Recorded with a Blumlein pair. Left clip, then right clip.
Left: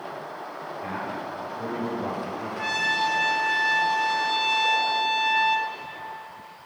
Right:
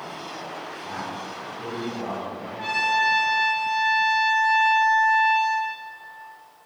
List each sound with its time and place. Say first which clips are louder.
0.8 s a man speaking: left 2 dB; 65° left, 2.5 m
2.6 s a trumpet: right 3 dB; 10° left, 0.8 m